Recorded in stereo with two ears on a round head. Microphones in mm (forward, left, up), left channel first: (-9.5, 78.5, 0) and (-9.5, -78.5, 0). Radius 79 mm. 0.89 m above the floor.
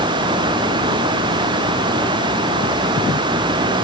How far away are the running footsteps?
No running footsteps in this recording.